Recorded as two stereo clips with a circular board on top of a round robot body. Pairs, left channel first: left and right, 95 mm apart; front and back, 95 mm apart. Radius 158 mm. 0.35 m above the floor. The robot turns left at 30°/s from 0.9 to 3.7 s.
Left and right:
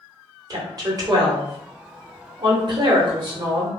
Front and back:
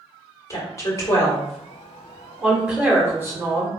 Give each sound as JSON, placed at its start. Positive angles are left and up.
{"t": 0.5, "sound": "a woman speaking", "azimuth_deg": -50, "distance_m": 1.2}